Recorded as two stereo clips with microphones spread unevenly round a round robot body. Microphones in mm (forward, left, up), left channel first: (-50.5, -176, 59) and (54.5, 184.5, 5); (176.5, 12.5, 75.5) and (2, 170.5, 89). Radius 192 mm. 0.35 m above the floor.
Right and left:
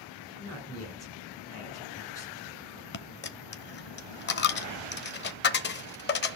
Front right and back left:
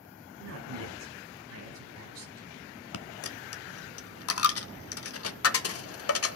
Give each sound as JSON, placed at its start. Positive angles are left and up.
{"t": 0.4, "sound": "a man speaking", "azimuth_deg": 170, "distance_m": 4.5}
{"t": 2.9, "sound": "a dropped coin", "azimuth_deg": -40, "distance_m": 0.9}